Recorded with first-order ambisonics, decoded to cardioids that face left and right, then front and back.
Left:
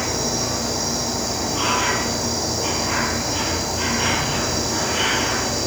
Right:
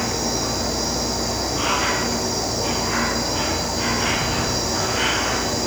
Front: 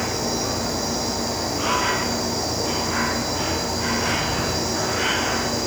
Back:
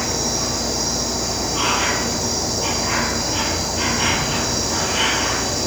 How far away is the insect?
About 4 m.